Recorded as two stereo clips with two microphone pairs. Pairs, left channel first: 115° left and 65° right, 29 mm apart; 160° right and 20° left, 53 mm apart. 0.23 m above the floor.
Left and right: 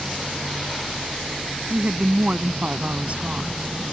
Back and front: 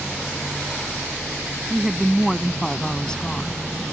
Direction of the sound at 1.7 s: 55° right.